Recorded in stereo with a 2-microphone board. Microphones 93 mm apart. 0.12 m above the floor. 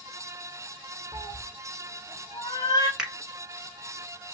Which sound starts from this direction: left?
A cat meowing, at 1.1 s.